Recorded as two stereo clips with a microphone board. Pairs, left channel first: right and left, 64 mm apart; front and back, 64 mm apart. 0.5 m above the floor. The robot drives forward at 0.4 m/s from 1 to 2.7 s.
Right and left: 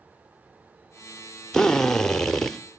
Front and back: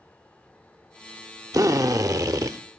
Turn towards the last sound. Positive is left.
turn(degrees=-175)